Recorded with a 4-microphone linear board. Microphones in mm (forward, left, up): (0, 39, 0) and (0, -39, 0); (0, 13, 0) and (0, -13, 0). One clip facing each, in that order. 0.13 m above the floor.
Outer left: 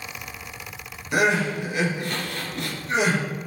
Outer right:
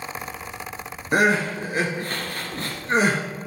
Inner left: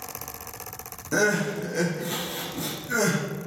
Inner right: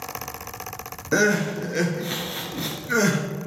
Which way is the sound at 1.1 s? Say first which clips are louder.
Outer right 2 dB, inner right 3 dB; 40° right (ahead or behind).